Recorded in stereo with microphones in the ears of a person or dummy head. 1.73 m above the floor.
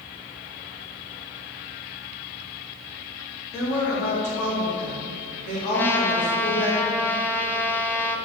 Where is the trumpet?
15° left (ahead or behind), 0.6 m.